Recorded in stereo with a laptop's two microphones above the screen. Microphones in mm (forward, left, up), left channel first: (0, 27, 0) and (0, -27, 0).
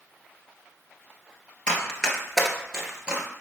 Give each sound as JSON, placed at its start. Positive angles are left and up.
{"t": 1.7, "sound": "running footsteps", "side_deg": 20, "distance_m": 0.9}